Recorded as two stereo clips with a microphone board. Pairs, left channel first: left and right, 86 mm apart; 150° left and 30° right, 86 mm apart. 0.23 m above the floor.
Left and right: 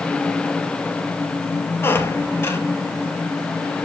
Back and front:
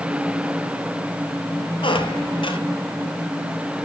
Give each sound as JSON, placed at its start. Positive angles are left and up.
{"t": 1.8, "sound": "a squeak", "azimuth_deg": 150, "distance_m": 1.9}